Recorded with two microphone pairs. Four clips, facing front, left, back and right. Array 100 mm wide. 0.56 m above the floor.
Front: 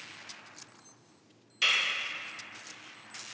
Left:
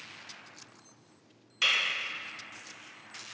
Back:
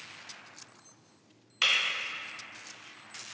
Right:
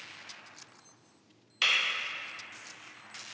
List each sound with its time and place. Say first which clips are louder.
1.6 s breaking glass: even, even; 170° right, 1.4 m